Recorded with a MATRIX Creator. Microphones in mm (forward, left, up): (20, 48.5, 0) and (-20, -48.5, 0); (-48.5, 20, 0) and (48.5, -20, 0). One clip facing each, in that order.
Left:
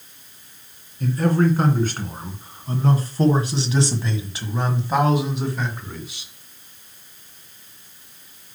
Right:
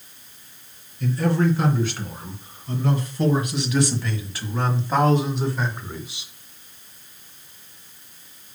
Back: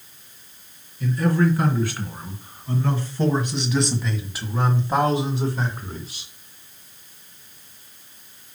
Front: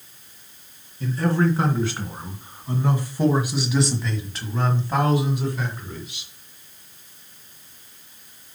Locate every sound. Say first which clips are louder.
1.0 s a man speaking: left 2 dB, back 1 dB; 30° left, 3 m; by 6.3 s 175° left, 1.9 m